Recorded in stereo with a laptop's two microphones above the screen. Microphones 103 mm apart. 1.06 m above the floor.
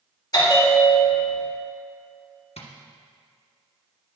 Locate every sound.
0.3 s a bell: 40° left (ahead or behind), 2.5 m
2.6 s tapping: 75° left (ahead or behind), 1.2 m